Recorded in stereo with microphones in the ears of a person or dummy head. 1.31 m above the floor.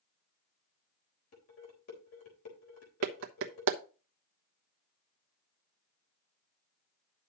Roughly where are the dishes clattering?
Left.